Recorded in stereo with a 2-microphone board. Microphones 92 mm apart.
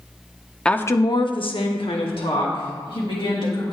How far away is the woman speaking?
About 0.6 m.